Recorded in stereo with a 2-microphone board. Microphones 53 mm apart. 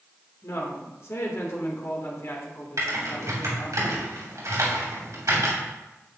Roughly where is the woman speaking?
Left.